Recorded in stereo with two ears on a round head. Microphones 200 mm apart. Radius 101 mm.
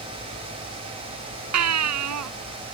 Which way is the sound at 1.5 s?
85° right.